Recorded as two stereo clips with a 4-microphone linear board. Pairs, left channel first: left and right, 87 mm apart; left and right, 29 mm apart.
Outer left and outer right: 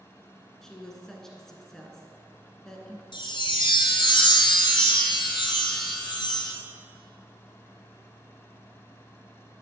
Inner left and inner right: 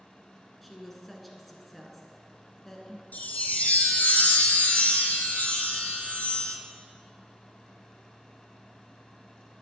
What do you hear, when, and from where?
0.6 s a woman speaking: 5° left (ahead or behind), 1.1 m
3.1 s a chime: 65° left (ahead or behind), 0.9 m